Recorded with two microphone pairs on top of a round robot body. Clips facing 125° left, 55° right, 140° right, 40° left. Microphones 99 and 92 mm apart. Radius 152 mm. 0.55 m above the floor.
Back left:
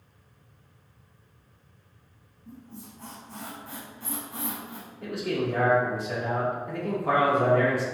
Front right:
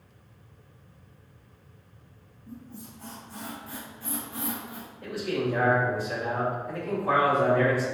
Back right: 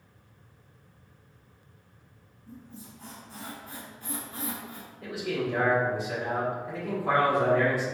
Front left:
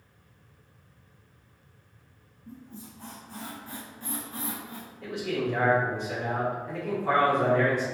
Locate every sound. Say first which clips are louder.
2.5 s a squeak: front right 1 dB, front left 2 dB; 90° left, 1.1 m
5.0 s a man speaking: even, front left 1 dB; 140° left, 1.7 m